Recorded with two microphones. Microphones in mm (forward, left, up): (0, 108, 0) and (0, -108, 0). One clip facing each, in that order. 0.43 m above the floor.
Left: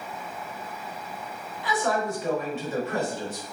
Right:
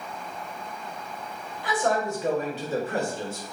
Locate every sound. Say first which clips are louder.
1.6 s a man speaking: right 1 dB; 50° right (ahead or behind), 2 m; by 3.4 s 25° right (ahead or behind), 1.6 m